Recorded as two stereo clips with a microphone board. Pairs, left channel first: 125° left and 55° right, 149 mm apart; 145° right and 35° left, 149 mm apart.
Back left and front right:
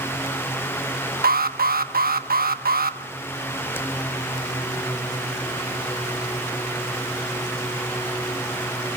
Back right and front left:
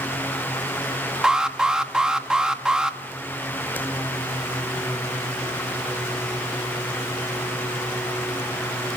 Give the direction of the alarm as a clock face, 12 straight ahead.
2 o'clock.